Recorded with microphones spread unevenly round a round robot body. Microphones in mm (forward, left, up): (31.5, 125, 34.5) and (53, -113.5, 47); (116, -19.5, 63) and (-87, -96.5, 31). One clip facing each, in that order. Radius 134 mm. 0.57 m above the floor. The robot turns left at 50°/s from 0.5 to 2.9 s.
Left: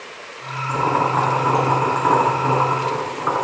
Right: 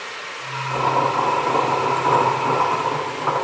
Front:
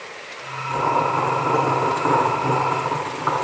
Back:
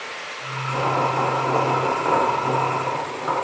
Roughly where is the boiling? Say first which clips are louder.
Left 1 dB, front 1 dB; behind left.